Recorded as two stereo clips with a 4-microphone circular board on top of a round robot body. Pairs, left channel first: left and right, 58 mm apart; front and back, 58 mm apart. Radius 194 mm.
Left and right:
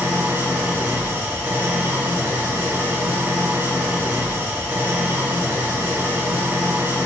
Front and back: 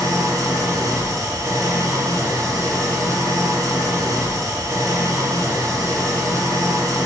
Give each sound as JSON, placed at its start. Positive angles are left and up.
{"t": 0.0, "sound": "an engine running", "azimuth_deg": -150, "distance_m": 0.8}